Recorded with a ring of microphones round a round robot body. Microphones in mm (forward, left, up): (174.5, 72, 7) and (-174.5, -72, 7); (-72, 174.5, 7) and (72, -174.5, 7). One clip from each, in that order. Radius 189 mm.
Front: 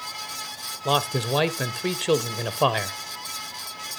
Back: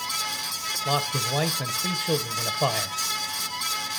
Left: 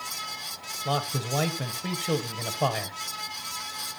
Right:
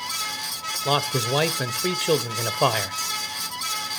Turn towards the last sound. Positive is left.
turn(degrees=-35)